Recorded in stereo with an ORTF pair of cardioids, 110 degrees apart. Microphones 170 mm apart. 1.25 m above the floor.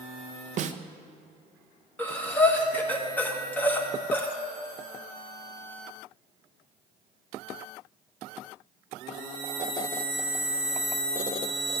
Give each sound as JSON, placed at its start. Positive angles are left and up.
{"t": 0.6, "sound": "a snare drum", "azimuth_deg": -45, "distance_m": 0.6}
{"t": 2.0, "sound": "breathing", "azimuth_deg": 10, "distance_m": 1.4}